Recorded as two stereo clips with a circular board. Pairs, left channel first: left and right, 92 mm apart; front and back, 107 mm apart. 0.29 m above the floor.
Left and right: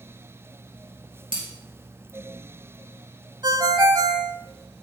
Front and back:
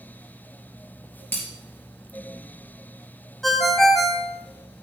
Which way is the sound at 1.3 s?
70° right.